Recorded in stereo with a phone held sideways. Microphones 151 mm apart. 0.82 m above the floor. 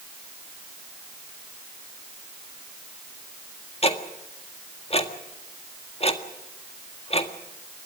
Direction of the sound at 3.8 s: 40° left (ahead or behind).